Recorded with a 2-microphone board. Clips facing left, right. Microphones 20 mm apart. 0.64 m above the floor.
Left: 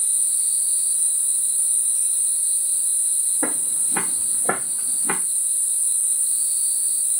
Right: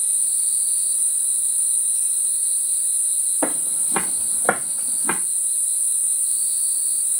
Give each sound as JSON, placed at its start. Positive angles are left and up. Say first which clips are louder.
{"t": 3.4, "sound": "footsteps", "louder": "right 1 dB", "side_deg": -60, "distance_m": 1.2}